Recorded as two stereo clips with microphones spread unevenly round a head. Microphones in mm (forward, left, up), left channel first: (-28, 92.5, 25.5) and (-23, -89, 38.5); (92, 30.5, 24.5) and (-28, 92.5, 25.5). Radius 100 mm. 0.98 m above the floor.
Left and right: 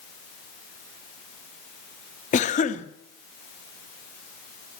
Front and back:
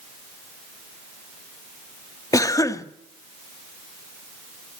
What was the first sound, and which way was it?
A cough, 40° left.